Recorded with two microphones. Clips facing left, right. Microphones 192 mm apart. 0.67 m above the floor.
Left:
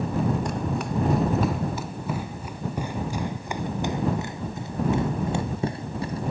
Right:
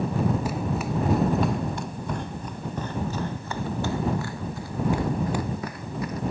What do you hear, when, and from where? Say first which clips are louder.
0.5 s running footsteps: even; 5° right (ahead or behind); by 6.2 s 30° left (ahead or behind)